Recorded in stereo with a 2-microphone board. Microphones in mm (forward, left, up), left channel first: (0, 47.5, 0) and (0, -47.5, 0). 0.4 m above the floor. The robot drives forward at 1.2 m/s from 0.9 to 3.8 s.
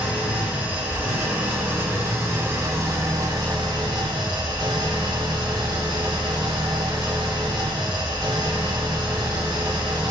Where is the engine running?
20° right (ahead or behind), 4.5 m; by 10.1 s 55° right (ahead or behind), 1.8 m.